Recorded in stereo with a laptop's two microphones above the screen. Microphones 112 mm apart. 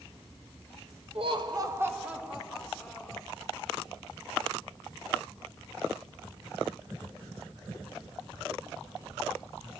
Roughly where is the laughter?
Right.